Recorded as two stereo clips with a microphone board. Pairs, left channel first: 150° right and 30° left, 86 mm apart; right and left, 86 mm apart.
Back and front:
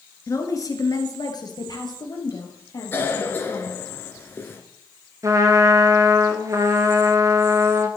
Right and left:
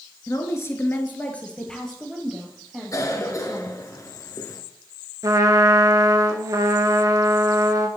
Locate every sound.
0.3 s a woman speaking: 120° right, 1.4 m; by 3.7 s 170° left, 3.5 m
2.9 s a cough: 100° right, 1.8 m
5.2 s a trumpet: 65° left, 1.0 m